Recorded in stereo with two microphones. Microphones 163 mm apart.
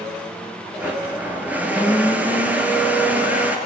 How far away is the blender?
About 3.5 m.